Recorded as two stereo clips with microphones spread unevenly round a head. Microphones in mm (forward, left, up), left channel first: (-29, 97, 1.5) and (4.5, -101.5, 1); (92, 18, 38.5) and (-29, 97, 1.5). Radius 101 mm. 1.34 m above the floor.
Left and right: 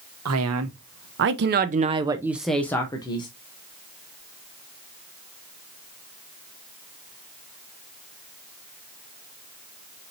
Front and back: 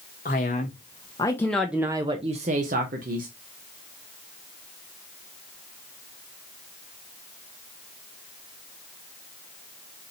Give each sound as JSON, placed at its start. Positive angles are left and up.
{"t": 0.2, "sound": "a man speaking", "azimuth_deg": -85, "distance_m": 1.0}